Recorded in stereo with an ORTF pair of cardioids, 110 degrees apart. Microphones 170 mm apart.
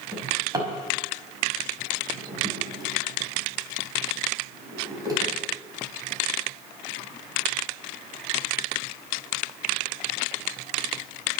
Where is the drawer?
25° right, 5 m.